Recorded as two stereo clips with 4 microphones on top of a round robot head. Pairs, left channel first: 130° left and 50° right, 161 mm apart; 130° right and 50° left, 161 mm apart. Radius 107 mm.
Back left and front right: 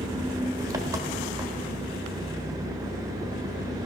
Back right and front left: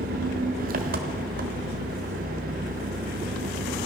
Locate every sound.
0.0 s an engine running: 20° left, 1.1 m